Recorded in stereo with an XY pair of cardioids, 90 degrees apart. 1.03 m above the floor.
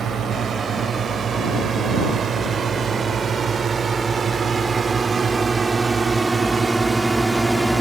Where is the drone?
60° right; by 7.8 s 5° right.